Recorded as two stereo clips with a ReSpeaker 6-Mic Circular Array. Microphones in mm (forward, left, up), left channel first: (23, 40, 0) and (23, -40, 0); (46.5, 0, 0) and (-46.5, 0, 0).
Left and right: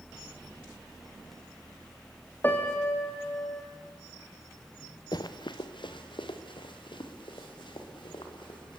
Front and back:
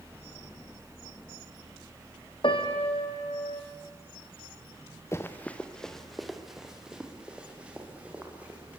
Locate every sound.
2.4 s a piano: 25° left, 3 m
5.1 s running footsteps: 60° left, 1.6 m; by 8.8 s 105° left, 7 m